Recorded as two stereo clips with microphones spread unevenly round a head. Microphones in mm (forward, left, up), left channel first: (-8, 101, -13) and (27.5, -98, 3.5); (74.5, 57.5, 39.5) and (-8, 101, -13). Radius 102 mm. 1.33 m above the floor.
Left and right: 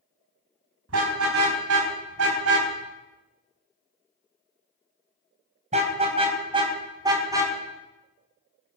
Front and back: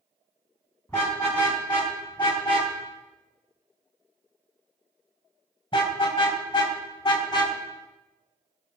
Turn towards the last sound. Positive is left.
turn(degrees=-5)